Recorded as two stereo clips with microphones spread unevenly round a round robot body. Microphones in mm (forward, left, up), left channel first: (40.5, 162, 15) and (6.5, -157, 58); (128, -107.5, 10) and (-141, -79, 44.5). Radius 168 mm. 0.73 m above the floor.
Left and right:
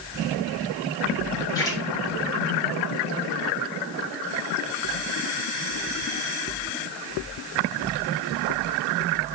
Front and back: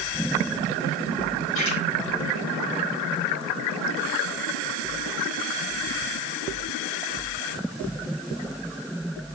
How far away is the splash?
About 3.5 m.